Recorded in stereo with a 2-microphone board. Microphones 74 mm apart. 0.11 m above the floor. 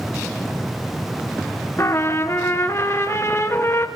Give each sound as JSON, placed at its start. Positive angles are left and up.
{"t": 1.8, "sound": "a trumpet", "side_deg": 40, "distance_m": 2.0}